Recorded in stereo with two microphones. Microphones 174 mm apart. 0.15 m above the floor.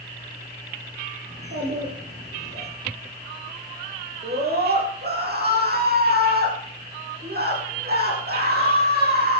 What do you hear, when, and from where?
1.3 s a child speaking: 80° right, 6.5 m
4.2 s a scream: 65° right (ahead or behind), 5.5 m